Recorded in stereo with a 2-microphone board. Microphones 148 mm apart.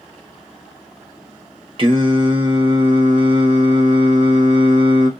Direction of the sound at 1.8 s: 40° right (ahead or behind).